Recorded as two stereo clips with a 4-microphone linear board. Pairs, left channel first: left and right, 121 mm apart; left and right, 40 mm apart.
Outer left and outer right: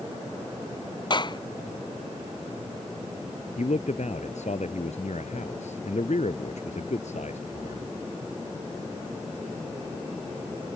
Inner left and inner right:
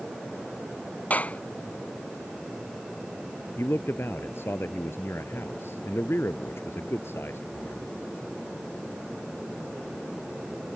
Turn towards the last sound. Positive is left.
turn(degrees=80)